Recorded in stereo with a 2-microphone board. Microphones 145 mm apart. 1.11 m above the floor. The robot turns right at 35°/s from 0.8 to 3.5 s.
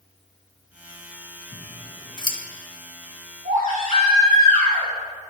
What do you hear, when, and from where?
1.5 s scissors: 55° left (ahead or behind), 0.9 m; by 2.4 s 25° left (ahead or behind), 0.9 m
3.5 s a baby crying: 65° right (ahead or behind), 2.5 m